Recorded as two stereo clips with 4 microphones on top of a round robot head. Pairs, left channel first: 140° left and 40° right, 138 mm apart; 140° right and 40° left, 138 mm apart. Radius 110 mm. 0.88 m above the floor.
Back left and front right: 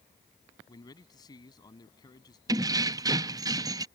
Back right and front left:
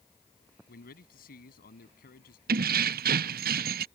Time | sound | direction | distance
0.7 | a man speaking | 155° right | ?
2.5 | keys jangling | 25° left | ?